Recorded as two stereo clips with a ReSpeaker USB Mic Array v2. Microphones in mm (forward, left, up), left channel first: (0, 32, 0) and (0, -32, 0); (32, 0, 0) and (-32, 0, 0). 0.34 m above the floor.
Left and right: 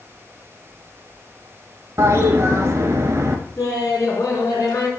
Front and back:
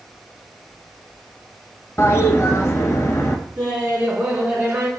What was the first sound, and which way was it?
A toilet flushing, 45° right.